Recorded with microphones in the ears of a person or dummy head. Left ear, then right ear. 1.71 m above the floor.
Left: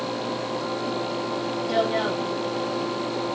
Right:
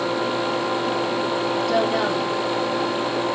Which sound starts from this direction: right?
A woman speaking, at 1.7 s.